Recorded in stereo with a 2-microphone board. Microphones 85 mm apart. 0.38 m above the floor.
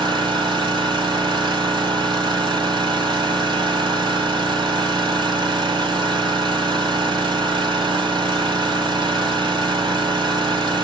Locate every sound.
0.0 s an engine running: 70° right (ahead or behind), 1.6 m